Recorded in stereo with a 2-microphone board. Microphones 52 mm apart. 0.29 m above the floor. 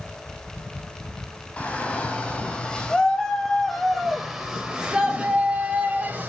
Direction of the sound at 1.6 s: 25° left (ahead or behind).